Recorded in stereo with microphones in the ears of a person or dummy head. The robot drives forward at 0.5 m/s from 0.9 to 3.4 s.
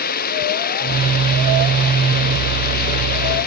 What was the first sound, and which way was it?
Running water, 50° left (ahead or behind).